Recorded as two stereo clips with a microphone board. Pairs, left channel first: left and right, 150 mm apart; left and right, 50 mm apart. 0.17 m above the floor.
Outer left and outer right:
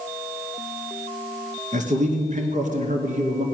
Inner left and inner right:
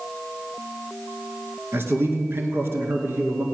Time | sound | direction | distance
1.7 | a man speaking | 55° right (ahead or behind) | 2 m